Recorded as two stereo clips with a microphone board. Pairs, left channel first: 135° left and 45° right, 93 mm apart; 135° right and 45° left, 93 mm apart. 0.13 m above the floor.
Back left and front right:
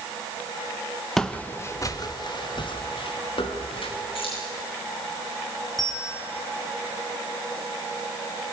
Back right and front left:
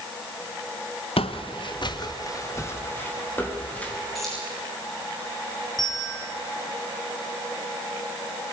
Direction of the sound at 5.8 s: Straight behind.